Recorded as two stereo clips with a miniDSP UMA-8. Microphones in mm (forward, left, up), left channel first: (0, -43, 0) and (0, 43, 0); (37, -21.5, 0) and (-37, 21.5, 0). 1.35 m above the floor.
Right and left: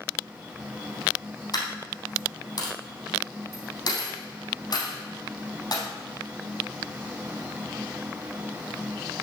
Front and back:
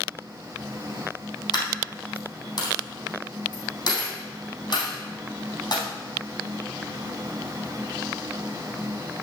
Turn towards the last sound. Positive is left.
turn(degrees=-65)